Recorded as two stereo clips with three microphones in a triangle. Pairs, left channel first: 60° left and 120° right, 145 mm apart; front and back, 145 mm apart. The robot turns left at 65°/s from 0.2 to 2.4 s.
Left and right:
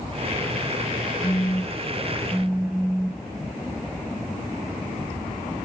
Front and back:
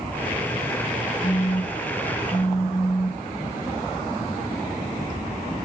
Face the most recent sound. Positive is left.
turn(degrees=-80)